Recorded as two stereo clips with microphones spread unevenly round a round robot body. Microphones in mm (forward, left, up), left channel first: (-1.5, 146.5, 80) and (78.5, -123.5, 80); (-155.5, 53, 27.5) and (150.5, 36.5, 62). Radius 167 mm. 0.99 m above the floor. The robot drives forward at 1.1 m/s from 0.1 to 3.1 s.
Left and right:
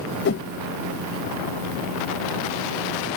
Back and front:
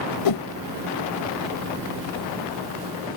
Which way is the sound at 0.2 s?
160° left.